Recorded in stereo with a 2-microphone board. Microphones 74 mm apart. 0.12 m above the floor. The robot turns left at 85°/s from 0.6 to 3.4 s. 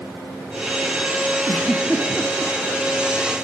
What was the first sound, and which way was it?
A giggle, 35° left (ahead or behind).